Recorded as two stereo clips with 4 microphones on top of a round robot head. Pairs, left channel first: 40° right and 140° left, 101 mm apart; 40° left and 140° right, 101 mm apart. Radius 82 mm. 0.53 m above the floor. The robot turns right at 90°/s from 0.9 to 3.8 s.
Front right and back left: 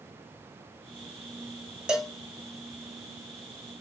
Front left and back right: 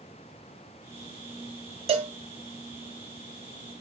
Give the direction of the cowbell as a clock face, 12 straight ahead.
5 o'clock.